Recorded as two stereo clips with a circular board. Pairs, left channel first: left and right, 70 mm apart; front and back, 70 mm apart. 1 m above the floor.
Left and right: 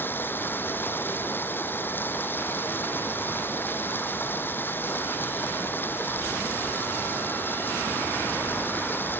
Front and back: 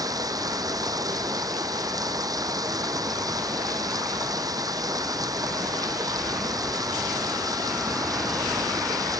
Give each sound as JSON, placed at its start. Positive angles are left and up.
{"t": 0.0, "sound": "running water", "azimuth_deg": 150}